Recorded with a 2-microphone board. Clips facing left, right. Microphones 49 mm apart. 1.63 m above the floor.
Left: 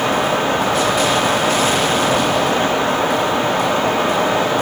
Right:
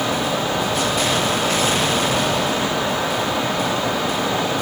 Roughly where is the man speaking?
No man speaking in this recording.